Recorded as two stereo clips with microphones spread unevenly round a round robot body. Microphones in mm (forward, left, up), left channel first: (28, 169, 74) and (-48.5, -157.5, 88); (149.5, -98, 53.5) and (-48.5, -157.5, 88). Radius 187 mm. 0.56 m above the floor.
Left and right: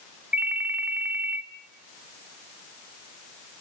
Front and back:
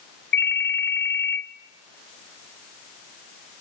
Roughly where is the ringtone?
Ahead.